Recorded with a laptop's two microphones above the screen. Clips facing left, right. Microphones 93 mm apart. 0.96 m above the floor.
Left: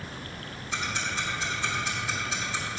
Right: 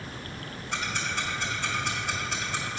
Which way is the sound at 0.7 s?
65° right (ahead or behind).